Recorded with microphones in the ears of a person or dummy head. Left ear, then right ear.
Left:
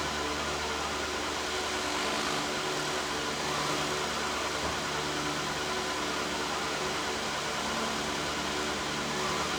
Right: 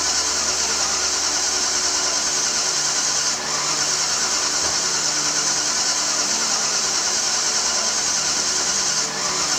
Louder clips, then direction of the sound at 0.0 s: Right 10 dB; 90° right.